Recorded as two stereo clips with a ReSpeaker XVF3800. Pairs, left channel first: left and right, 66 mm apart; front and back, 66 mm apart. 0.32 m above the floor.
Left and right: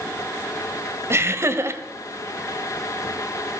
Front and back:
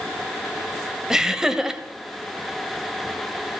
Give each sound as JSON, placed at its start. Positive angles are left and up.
{"t": 1.1, "sound": "laughter", "azimuth_deg": -105, "distance_m": 1.5}